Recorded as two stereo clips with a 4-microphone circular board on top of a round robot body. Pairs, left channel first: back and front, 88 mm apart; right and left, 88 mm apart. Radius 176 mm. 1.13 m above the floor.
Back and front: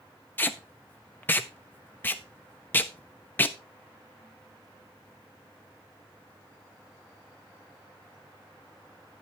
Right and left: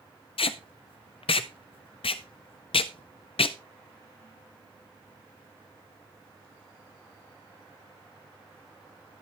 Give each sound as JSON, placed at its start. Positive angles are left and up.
{"t": 0.4, "sound": "tape being pulled", "azimuth_deg": -110, "distance_m": 0.5}